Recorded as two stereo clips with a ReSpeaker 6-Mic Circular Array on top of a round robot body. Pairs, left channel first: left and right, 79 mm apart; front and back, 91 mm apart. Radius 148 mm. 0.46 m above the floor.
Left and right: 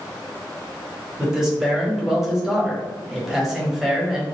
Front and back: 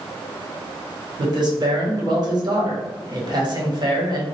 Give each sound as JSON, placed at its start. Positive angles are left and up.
{"t": 1.2, "sound": "a man speaking", "azimuth_deg": -170, "distance_m": 1.4}